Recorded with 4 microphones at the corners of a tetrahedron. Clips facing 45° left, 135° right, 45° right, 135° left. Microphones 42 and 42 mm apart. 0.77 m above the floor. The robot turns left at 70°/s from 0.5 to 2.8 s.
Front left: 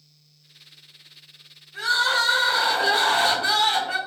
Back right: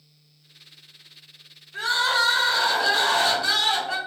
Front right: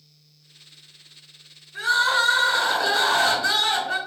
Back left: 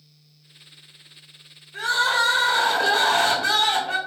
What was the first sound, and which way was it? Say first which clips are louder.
Crying: front left 1 dB, front right 1 dB; straight behind.